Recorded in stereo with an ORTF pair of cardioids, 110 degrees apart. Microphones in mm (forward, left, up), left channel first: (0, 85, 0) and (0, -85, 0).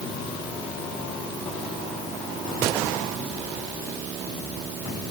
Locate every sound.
Only background noise.